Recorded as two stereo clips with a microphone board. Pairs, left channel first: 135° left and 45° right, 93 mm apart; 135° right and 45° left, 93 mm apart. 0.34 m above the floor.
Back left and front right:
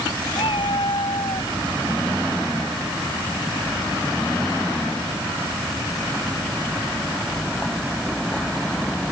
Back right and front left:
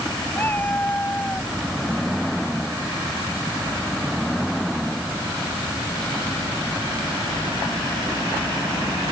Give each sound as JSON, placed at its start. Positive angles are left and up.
{"t": 0.3, "sound": "a cat meowing", "azimuth_deg": 155}